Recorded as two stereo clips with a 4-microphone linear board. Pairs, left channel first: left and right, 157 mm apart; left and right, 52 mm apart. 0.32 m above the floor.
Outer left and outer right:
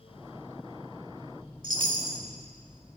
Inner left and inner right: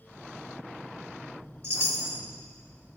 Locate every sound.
1.6 s a chime: 60° right (ahead or behind), 0.7 m